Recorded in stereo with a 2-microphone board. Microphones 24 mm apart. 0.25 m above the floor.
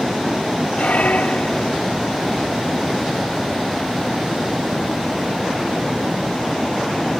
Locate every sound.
0.8 s a squeak: 75° left (ahead or behind)